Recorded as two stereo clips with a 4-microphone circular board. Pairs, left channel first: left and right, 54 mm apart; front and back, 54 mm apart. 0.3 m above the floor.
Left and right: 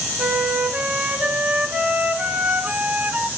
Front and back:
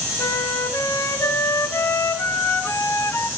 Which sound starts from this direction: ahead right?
A flute, at 0.2 s.